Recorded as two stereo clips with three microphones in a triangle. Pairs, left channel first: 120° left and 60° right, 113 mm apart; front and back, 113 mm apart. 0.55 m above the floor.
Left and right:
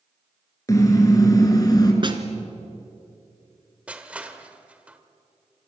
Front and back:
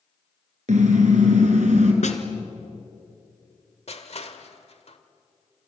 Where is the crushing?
20° left, 1.5 m.